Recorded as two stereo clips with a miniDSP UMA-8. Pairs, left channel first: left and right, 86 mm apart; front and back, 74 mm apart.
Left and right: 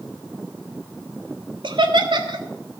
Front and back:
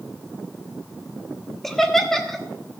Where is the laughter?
85° right, 1.4 m.